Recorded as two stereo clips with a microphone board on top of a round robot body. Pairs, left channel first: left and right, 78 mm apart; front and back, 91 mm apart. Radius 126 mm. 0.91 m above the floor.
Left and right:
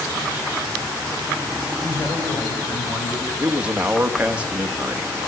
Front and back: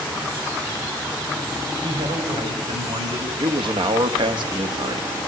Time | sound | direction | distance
1.8 | a man speaking | 155° left | 5.5 m
3.4 | a man speaking | 165° right | 2.0 m